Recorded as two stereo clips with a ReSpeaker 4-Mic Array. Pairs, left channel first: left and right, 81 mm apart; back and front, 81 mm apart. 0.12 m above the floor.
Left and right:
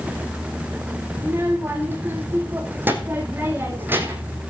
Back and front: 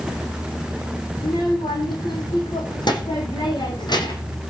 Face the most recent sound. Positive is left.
turn(degrees=-155)